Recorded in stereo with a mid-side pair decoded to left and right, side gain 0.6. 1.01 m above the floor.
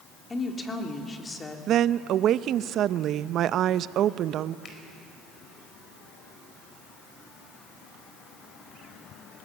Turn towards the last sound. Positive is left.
turn(degrees=45)